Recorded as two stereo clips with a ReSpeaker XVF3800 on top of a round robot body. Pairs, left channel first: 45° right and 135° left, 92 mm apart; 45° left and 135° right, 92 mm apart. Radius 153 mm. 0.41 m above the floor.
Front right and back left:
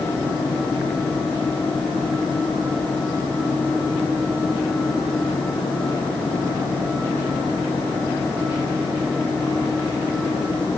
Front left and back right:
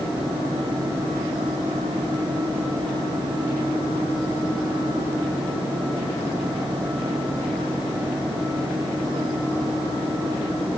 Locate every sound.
Only background noise.